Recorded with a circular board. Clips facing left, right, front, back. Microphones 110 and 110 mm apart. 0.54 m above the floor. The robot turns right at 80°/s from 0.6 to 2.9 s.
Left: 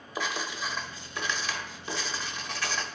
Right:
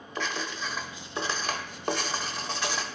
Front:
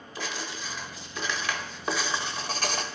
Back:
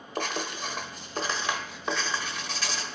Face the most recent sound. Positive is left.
turn(degrees=-5)